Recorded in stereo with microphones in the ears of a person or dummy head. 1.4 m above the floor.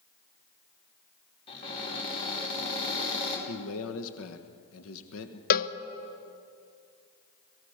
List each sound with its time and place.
1.5 s a cupboard door: 30° left (ahead or behind), 4.5 m
3.5 s a man speaking: 75° left (ahead or behind), 1.3 m
5.5 s a cowbell: 45° left (ahead or behind), 0.8 m